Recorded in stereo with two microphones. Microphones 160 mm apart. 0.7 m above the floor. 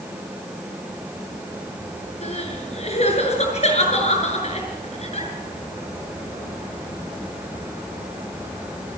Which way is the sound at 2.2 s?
45° left (ahead or behind).